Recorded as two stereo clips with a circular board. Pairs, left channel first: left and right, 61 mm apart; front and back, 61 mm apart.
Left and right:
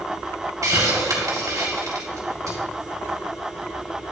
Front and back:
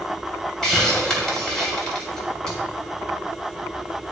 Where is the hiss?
80° right, 2.5 m.